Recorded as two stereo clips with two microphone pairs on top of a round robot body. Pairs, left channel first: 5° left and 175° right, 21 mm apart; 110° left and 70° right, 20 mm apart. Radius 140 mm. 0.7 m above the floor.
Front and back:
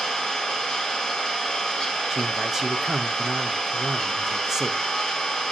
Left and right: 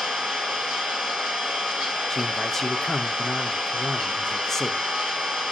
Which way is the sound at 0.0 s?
60° right.